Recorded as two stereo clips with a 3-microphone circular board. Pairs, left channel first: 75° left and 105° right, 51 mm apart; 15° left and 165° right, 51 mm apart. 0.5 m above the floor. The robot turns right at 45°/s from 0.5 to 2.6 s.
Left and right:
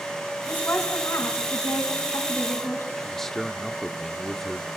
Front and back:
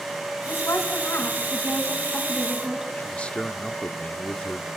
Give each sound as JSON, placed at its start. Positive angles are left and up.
{"t": 0.5, "sound": "a woman speaking", "azimuth_deg": 25, "distance_m": 4.5}
{"t": 3.0, "sound": "a man speaking", "azimuth_deg": 0, "distance_m": 1.3}